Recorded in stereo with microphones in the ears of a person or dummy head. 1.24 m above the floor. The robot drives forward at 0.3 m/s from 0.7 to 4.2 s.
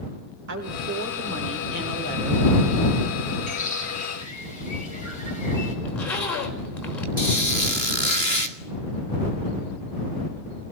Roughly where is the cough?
No cough in this recording.